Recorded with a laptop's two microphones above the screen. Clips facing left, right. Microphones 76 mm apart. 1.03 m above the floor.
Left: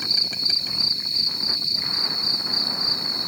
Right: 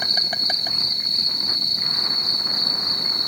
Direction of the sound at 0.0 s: 55° right (ahead or behind).